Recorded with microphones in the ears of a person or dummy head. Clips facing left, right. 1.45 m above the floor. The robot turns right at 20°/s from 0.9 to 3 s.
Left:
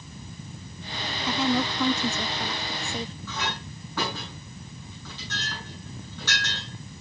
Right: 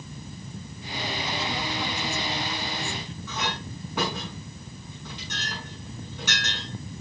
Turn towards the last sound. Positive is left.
turn(degrees=-15)  # may be behind; listen again after turning